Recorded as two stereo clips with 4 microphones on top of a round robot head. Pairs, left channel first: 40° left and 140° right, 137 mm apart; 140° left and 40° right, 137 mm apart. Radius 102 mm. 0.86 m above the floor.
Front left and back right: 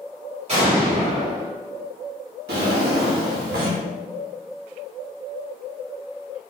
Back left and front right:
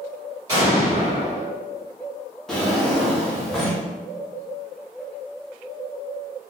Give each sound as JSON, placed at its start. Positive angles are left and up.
{"t": 0.5, "sound": "an explosion", "azimuth_deg": -100, "distance_m": 1.9}
{"t": 2.5, "sound": "a drawer", "azimuth_deg": -135, "distance_m": 0.6}